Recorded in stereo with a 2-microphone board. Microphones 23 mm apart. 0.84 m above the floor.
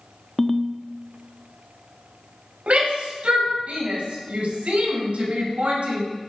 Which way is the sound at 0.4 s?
15° left (ahead or behind).